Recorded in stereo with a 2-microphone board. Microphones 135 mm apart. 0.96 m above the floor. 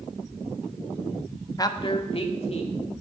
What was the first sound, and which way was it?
A man speaking, 25° left (ahead or behind).